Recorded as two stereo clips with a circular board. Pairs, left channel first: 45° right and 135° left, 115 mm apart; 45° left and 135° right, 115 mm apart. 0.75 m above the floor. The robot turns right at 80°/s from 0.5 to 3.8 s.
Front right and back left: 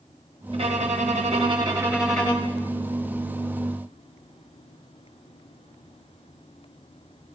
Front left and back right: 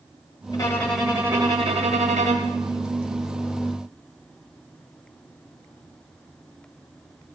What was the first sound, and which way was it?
A violin, 100° left.